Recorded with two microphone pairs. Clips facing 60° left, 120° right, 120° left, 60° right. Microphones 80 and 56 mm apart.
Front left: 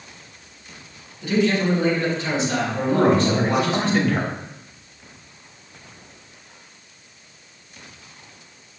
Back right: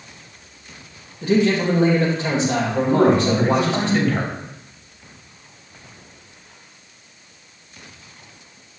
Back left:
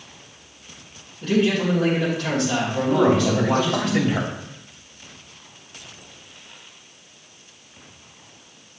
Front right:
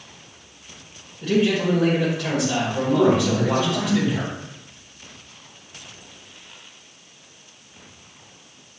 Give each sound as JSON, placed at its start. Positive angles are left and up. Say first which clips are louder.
{"t": 1.2, "sound": "a man speaking", "louder": "back right 2 dB, even", "azimuth_deg": -140, "distance_m": 2.0}
{"t": 2.9, "sound": "a man speaking", "louder": "back right 1 dB, even", "azimuth_deg": 145, "distance_m": 1.6}